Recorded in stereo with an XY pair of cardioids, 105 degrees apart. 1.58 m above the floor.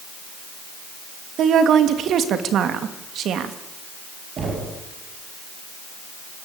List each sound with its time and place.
1.4 s a woman speaking: 65° right, 3 m
4.4 s knocking: 55° right, 7.5 m